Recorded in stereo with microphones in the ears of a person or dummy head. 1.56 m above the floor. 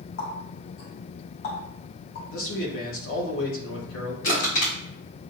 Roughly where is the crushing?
Left.